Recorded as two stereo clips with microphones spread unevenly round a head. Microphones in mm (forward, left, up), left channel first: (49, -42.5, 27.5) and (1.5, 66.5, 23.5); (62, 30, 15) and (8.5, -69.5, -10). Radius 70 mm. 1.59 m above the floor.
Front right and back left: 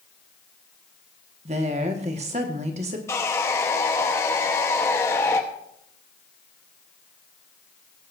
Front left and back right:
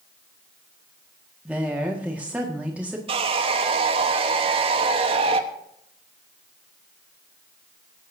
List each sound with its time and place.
1.4 s a woman speaking: 160° left, 1.7 m
3.1 s sawing: 120° right, 1.0 m